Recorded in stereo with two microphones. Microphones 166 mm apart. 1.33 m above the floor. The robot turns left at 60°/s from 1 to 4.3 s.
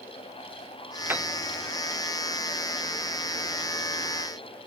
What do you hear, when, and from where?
1.1 s a piano: 10° right (ahead or behind), 0.5 m; by 1.3 s 5° right (ahead or behind), 0.5 m